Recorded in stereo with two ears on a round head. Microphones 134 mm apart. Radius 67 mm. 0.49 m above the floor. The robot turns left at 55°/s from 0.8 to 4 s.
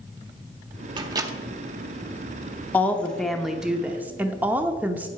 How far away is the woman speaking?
About 0.8 m.